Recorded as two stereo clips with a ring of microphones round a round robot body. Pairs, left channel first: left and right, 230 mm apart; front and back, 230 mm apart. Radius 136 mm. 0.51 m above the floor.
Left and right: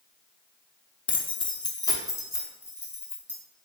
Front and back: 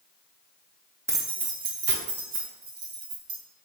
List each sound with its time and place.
1.1 s keys jangling: 120° left, 0.6 m; by 3.4 s 170° left, 1.5 m